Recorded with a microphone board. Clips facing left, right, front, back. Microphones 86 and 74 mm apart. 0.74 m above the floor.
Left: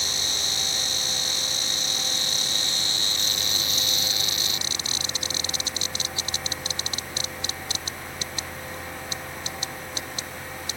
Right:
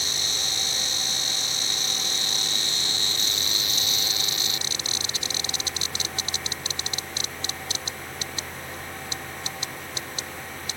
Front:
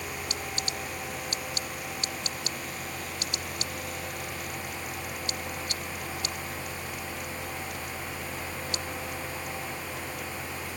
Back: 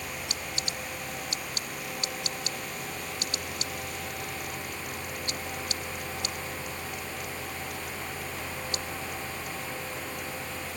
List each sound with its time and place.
Only background noise.